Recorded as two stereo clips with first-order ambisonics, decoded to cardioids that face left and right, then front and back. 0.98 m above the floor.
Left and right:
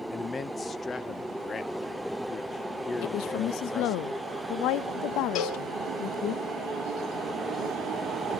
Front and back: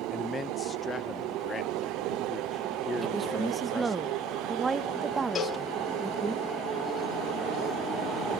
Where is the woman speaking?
105° left, 0.8 m.